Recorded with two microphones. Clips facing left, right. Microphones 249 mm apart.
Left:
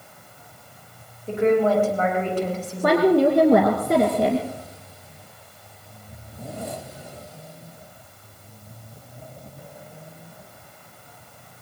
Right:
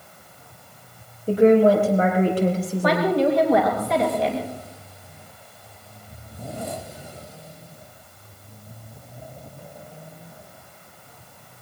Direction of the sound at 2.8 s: 55° left (ahead or behind).